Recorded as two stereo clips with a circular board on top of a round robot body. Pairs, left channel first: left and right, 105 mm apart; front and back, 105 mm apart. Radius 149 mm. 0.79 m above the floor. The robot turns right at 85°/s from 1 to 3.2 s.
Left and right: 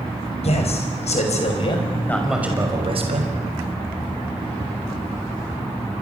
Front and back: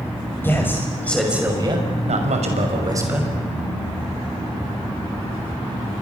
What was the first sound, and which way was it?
A man speaking, 70° left.